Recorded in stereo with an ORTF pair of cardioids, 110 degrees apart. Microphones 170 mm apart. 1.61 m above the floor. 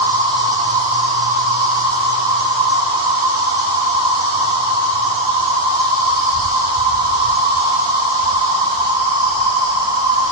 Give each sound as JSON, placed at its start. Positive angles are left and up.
{"t": 0.0, "sound": "an insect", "azimuth_deg": -25, "distance_m": 1.2}